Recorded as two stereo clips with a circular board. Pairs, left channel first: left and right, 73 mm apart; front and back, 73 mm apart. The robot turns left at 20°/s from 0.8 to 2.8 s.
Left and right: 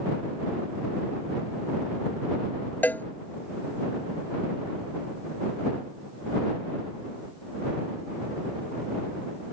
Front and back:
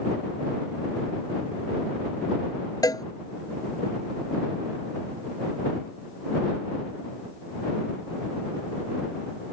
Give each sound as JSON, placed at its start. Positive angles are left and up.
{"t": 2.8, "sound": "a cowbell", "azimuth_deg": 25}